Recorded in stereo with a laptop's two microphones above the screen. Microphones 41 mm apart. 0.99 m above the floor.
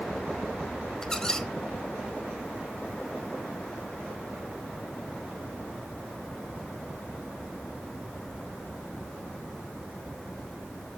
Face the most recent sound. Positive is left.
turn(degrees=15)  # may be behind; listen again after turning